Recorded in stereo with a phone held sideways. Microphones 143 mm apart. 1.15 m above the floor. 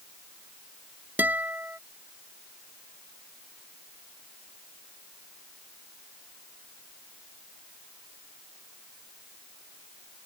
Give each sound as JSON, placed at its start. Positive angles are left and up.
{"t": 1.2, "sound": "a guitar", "side_deg": -15}